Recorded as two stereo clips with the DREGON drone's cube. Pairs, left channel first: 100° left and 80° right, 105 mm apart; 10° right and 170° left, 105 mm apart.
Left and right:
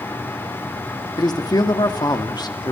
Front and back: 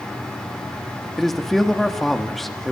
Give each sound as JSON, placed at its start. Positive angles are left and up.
{"t": 1.2, "sound": "a man speaking", "azimuth_deg": 75, "distance_m": 1.6}